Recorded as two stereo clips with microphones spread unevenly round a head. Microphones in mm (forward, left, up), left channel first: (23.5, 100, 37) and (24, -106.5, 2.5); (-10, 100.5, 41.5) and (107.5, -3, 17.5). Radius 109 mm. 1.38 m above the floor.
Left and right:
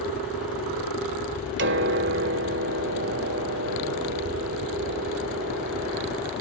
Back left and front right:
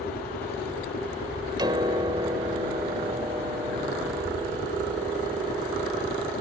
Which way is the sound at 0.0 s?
130° left.